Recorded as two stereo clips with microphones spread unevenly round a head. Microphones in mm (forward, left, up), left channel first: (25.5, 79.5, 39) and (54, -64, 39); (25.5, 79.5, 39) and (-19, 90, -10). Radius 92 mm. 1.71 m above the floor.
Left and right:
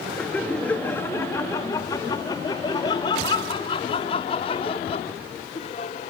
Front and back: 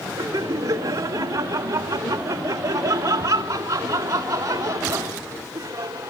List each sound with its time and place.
0.2 s laughter: 175° right; by 6.1 s 155° left